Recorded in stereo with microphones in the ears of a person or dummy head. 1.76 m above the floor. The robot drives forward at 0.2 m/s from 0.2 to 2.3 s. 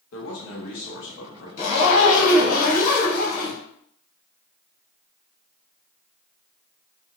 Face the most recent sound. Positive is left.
turn(degrees=45)  # may be behind; listen again after turning